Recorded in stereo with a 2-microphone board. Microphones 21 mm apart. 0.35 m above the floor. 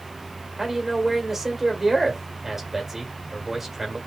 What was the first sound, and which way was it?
A man speaking, 20° right (ahead or behind).